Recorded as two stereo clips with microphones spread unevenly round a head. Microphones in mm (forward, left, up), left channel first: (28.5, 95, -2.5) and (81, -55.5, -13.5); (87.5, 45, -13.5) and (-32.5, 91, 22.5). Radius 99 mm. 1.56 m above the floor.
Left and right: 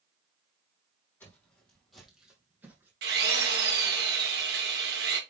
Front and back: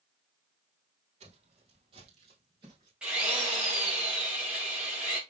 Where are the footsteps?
175° right, 3 m; by 2.9 s 150° right, 3 m.